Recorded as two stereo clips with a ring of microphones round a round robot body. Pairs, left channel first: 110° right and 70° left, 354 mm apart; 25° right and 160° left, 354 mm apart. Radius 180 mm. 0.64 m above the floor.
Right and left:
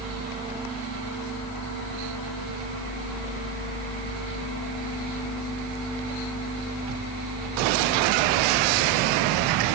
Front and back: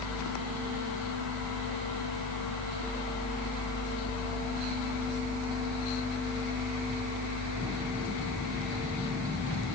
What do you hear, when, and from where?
Only background noise.